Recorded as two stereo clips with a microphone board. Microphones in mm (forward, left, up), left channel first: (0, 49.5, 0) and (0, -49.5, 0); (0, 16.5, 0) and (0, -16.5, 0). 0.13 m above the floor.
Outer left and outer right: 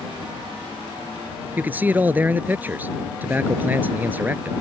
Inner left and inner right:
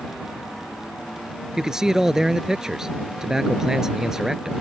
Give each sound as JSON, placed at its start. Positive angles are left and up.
{"t": 1.6, "sound": "a man speaking", "side_deg": -20}